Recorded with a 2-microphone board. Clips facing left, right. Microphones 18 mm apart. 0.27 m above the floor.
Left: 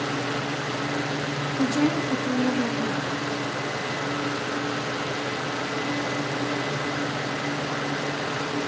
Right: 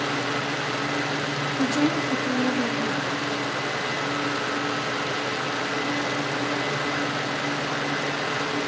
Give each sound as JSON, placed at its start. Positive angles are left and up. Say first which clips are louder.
{"t": 1.6, "sound": "a woman speaking", "louder": "even", "side_deg": 5, "distance_m": 3.0}